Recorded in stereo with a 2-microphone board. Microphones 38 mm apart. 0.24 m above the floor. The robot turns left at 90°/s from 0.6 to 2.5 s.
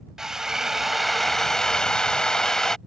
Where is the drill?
15° right (ahead or behind); by 2.8 s 15° left (ahead or behind).